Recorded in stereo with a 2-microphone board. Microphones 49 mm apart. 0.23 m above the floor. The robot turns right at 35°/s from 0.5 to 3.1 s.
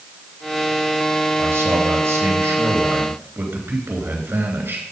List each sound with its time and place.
1.4 s a man speaking: 120° right, 3 m; by 4.8 s 60° right, 3 m